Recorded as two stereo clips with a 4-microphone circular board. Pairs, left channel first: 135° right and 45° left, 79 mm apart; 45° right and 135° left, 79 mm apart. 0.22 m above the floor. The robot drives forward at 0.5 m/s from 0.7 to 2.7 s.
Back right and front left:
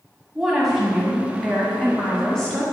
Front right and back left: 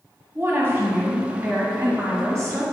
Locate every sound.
0.3 s a woman speaking: 120° left, 1.7 m; by 2.6 s 150° left, 2 m